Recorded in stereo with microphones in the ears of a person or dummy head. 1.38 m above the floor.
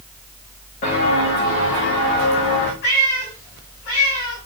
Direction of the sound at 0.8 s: 40° left (ahead or behind).